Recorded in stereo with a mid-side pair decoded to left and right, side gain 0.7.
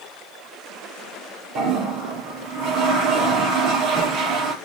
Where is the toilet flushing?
60° right, 6 m.